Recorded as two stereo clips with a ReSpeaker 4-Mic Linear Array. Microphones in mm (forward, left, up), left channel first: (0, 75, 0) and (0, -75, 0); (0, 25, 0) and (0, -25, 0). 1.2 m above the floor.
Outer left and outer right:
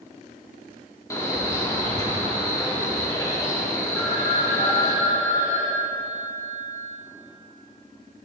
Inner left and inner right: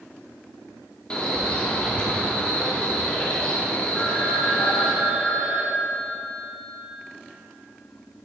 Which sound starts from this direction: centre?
A phone ringing, at 3.9 s.